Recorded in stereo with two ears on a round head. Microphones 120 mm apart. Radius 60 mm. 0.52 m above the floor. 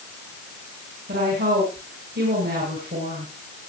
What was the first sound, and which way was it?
A woman speaking, 80° right.